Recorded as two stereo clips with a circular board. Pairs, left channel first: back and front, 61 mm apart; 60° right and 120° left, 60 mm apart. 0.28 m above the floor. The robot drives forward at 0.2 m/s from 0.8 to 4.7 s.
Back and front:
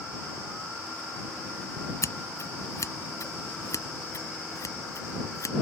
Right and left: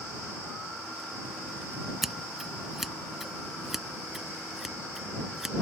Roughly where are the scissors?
Behind right.